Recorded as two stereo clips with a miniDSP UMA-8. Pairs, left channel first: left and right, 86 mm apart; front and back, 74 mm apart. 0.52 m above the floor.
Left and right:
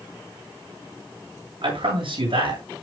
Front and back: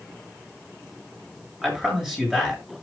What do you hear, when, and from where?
1.6 s a man speaking: 95° right, 7.5 m